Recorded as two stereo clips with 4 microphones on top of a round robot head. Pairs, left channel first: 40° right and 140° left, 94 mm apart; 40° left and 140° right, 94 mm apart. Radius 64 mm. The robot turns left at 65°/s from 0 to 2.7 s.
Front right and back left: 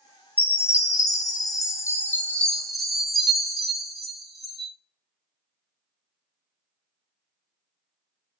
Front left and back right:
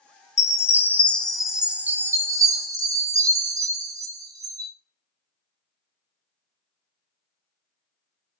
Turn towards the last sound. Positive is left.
turn(degrees=-135)